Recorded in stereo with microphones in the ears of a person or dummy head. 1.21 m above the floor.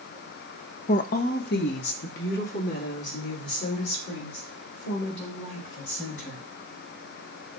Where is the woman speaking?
45° left (ahead or behind), 0.6 m; by 6.4 s 75° left (ahead or behind), 6 m.